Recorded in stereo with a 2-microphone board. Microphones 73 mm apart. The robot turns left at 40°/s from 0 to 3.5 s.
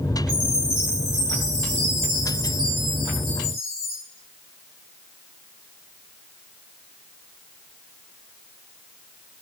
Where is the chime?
70° right, 1.7 m; by 4.0 s 160° left, 1.7 m.